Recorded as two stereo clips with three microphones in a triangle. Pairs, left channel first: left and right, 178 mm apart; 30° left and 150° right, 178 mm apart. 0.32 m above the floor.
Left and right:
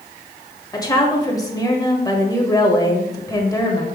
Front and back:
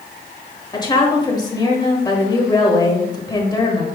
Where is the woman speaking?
55° left, 1.3 m.